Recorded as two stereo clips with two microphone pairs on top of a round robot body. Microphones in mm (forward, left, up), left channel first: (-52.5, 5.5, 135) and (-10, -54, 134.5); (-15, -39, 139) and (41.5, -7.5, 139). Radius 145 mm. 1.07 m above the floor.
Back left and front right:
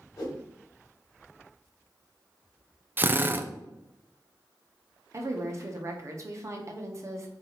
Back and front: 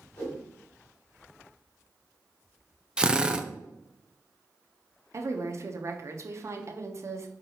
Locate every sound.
0.2 s a whoosh: 165° left, 1.8 m
3.0 s a drill: 35° right, 0.6 m
5.1 s a woman speaking: 10° right, 0.9 m